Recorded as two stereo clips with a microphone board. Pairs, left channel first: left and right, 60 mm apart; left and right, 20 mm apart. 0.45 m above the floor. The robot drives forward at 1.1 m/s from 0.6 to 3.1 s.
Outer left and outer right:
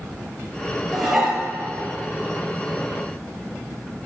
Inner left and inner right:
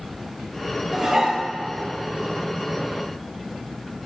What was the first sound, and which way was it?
Dishes clattering, 5° right (ahead or behind).